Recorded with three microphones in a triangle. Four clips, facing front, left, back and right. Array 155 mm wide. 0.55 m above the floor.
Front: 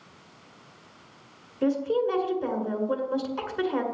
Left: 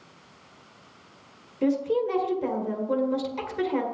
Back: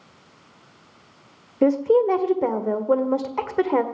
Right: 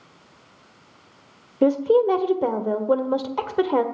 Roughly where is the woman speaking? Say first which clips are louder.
Right 7 dB, back 7 dB; behind right.